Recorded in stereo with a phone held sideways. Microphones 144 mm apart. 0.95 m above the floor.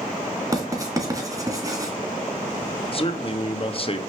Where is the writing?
25° right (ahead or behind), 2.5 m.